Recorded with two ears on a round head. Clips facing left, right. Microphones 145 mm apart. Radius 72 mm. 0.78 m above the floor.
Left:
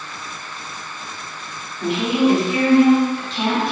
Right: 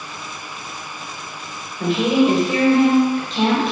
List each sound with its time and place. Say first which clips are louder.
1.8 s a woman speaking: right 2 dB; 40° right (ahead or behind), 2 m